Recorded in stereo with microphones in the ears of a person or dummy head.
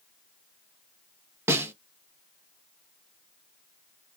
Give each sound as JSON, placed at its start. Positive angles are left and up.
{"t": 1.5, "sound": "a snare drum", "side_deg": -15, "distance_m": 0.9}